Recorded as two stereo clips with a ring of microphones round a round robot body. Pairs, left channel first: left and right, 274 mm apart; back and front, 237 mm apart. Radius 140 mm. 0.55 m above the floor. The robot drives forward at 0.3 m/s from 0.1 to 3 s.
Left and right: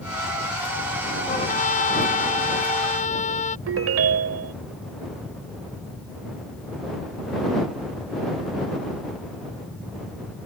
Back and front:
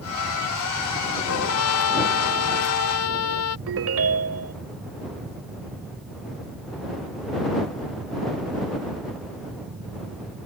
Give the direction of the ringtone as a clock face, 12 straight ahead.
1 o'clock.